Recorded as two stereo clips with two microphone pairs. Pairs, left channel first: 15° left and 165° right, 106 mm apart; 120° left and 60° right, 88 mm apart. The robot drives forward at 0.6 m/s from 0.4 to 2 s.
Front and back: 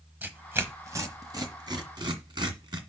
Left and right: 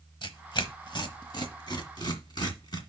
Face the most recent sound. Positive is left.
turn(degrees=155)